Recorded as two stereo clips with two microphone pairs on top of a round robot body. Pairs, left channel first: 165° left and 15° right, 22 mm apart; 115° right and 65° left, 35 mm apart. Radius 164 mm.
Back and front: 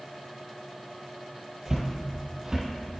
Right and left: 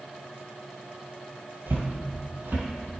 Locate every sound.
1.7 s footsteps: 50° left, 1.2 m; by 2.7 s 45° left, 1.7 m